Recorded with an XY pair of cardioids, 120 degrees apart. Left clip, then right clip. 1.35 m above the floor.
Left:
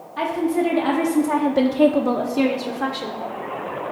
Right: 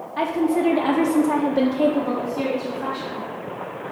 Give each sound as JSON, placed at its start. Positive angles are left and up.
{"t": 0.2, "sound": "a woman speaking", "azimuth_deg": -35, "distance_m": 1.2}